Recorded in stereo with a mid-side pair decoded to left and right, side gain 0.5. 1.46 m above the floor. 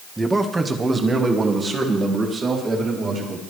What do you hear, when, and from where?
0.2 s a man speaking: 10° right, 1.4 m; by 3.4 s 40° right, 4.5 m